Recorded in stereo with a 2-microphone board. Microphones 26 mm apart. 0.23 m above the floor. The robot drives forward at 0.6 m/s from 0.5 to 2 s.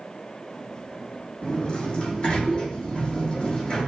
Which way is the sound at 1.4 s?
45° left (ahead or behind).